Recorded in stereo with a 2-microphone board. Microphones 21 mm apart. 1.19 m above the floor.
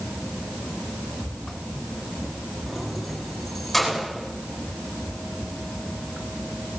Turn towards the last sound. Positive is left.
turn(degrees=0)  # may be behind; listen again after turning